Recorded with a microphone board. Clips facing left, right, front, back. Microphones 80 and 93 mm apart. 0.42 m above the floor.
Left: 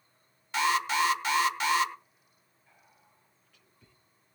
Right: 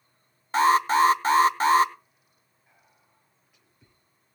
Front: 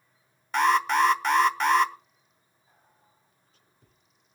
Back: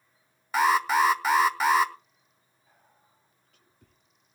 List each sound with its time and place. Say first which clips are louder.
0.5 s an alarm: right 8 dB, even; 95° right, 1.0 m
2.7 s whispering: left 1 dB, even; 165° right, 7.5 m